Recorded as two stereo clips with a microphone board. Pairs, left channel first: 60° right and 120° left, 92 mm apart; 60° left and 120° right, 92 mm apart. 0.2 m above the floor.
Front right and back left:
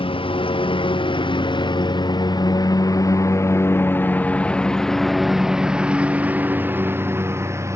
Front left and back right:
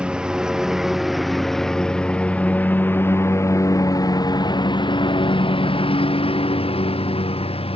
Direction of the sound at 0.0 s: 40° right.